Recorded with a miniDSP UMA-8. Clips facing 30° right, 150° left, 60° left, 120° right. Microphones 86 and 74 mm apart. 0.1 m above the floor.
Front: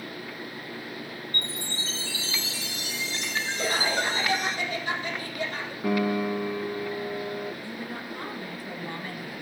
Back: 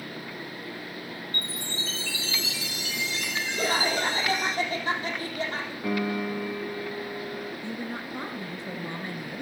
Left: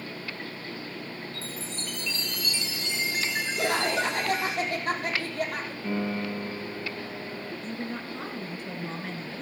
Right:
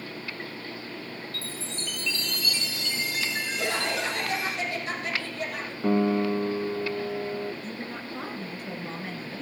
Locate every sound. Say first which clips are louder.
1.3 s a chime: even, even; 5° left, 1.9 m
3.6 s laughter: back 2 dB, left 3 dB; 105° left, 4 m
5.8 s a piano: front 3 dB, right 8 dB; 105° right, 1.8 m
7.6 s a woman speaking: back 2 dB, left 2 dB; 155° left, 1.2 m